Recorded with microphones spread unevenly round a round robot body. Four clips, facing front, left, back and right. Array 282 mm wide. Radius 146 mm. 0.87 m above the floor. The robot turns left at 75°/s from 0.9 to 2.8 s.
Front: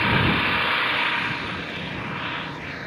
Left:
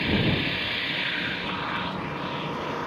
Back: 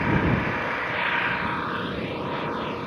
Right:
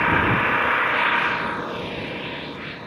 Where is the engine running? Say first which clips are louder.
Right 6 dB, front 1 dB; 65° right; by 2.9 s 150° left.